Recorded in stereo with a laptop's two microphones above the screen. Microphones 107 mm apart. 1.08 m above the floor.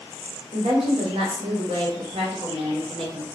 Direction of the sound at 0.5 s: 80° right.